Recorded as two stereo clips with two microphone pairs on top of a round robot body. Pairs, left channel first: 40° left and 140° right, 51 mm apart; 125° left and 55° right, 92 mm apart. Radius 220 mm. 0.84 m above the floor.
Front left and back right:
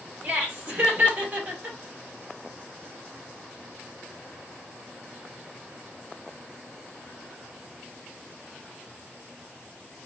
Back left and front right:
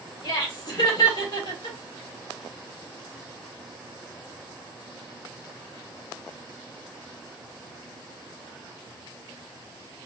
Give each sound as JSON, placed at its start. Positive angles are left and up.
{"t": 0.2, "sound": "laughter", "azimuth_deg": 160, "distance_m": 3.0}